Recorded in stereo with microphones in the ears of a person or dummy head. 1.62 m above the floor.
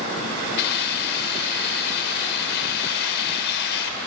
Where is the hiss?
60° left (ahead or behind), 2 m.